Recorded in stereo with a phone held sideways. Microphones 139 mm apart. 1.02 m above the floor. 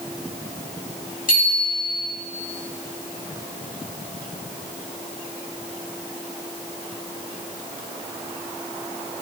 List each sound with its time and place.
1.3 s a bicycle bell: 85° left, 6 m